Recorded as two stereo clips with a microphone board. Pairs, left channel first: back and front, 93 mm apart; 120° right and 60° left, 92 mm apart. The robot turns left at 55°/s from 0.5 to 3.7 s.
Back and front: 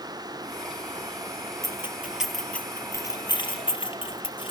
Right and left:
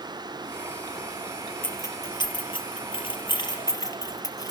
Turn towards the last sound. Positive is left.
turn(degrees=-165)